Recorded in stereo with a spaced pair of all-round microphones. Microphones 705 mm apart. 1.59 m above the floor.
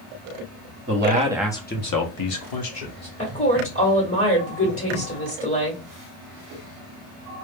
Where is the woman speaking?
20° left (ahead or behind), 1.1 m.